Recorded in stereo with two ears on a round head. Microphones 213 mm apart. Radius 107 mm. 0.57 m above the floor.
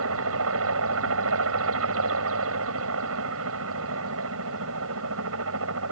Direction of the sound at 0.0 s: 60° right (ahead or behind).